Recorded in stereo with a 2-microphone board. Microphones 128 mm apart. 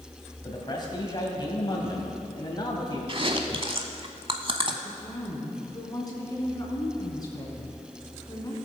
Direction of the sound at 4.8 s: 30° left (ahead or behind).